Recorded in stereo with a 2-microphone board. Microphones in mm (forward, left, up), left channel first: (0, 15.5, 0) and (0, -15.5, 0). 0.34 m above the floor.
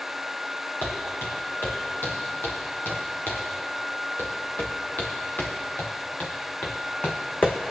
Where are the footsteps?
80° left, 5 m; by 7.6 s 35° left (ahead or behind), 1.4 m.